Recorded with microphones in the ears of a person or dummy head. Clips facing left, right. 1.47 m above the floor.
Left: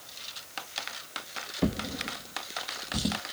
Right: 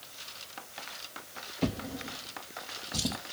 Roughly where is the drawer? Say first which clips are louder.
Left 3 dB; centre.